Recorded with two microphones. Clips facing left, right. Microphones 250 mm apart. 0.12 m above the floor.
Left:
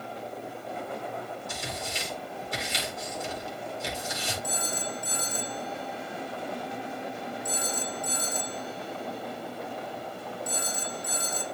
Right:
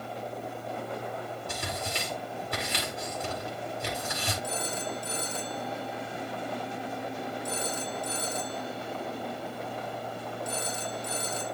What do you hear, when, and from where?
1.5 s tearing paper: 65° right (ahead or behind), 8 m
4.4 s a phone ringing: 75° right (ahead or behind), 2.5 m